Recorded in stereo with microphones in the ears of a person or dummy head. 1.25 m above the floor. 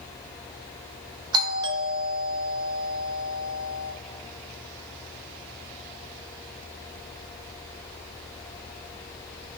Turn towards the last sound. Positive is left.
turn(degrees=-25)  # may be behind; listen again after turning